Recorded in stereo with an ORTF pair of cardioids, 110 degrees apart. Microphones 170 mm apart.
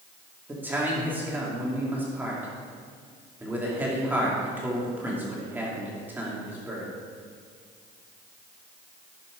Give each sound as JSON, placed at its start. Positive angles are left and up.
{"t": 0.5, "sound": "a man speaking", "azimuth_deg": -10, "distance_m": 2.5}